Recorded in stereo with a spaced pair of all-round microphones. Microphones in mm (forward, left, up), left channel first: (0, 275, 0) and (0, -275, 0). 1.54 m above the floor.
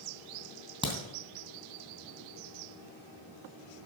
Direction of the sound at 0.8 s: 10° right (ahead or behind).